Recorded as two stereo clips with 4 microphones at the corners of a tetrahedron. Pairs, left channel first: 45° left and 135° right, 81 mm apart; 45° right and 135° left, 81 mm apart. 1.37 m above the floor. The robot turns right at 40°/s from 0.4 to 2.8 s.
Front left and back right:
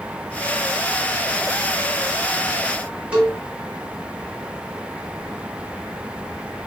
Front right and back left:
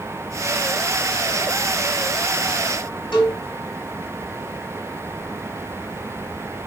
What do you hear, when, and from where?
3.1 s a cowbell: 60° right, 6 m